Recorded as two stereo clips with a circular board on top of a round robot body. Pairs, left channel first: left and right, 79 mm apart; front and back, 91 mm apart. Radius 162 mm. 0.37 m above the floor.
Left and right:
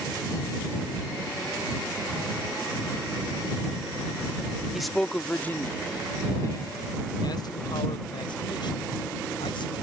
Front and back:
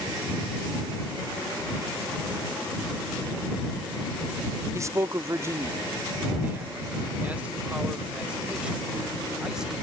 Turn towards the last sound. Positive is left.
turn(degrees=95)